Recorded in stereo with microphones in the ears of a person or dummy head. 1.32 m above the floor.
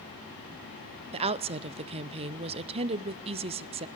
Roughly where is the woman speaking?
Right.